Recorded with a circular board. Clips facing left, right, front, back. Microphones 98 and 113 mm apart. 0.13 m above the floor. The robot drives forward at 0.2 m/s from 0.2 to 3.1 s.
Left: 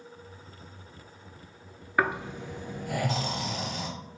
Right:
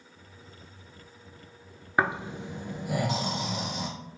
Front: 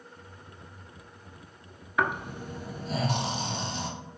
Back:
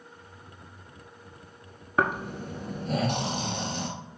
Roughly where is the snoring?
Behind right.